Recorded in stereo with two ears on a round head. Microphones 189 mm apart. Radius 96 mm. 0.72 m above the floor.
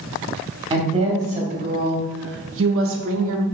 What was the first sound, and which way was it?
A woman speaking, 20° right (ahead or behind).